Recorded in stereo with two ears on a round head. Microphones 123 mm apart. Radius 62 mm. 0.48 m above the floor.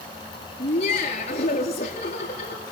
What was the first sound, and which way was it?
Laughter, 55° left (ahead or behind).